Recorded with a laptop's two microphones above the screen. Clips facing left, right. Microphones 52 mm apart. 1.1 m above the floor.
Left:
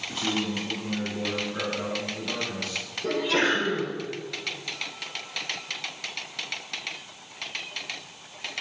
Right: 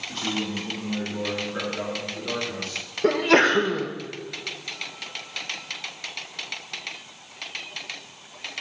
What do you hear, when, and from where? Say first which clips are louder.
0.1 s a man speaking: left 1 dB; 10° left (ahead or behind), 2 m; by 2.9 s 45° right (ahead or behind), 3 m
3.0 s a sneeze: right 6 dB; 60° right (ahead or behind), 1.5 m